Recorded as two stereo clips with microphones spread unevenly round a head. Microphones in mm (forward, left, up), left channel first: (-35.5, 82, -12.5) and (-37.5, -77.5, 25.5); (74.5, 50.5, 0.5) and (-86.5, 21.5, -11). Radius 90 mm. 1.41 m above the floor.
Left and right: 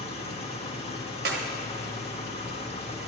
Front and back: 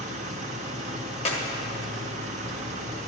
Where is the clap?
50° right, 1.5 m.